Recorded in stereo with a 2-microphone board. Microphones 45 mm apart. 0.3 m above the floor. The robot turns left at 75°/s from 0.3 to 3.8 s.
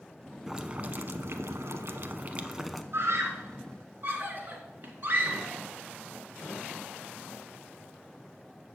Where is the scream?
60° right (ahead or behind), 3 m; by 5.5 s 50° right (ahead or behind), 3 m.